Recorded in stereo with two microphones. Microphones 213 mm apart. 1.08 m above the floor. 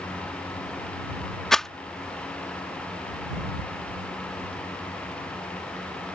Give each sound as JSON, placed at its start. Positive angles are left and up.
{"t": 1.5, "sound": "a rattle", "side_deg": 0}